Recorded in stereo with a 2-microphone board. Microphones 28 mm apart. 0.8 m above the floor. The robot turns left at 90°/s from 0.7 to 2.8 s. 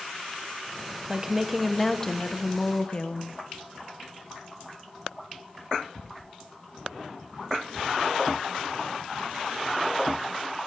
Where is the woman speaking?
125° right, 1.0 m; by 3.3 s 80° left, 1.0 m.